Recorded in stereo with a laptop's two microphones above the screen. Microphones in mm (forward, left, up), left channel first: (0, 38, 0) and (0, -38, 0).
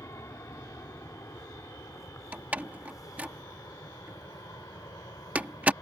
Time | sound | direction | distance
0.0 | an aircraft | 40° left (ahead or behind) | ?
2.3 | a door slam | 20° right (ahead or behind) | ?